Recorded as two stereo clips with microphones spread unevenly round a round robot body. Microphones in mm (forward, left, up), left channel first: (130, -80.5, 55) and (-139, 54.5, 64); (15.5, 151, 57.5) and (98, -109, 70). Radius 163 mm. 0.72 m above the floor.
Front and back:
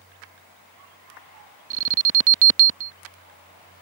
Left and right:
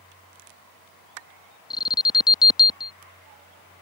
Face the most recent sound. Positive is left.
turn(degrees=175)